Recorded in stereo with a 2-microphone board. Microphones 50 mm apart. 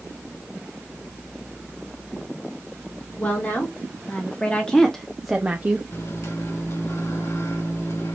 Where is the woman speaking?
35° left (ahead or behind), 2 m; by 5.8 s 40° right (ahead or behind), 0.7 m.